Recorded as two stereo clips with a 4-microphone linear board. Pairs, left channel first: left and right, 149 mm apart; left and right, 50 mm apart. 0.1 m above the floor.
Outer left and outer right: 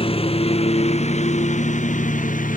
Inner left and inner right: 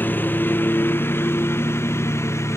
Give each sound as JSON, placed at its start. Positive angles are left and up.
{"t": 0.0, "sound": "a lawn mower", "side_deg": 40}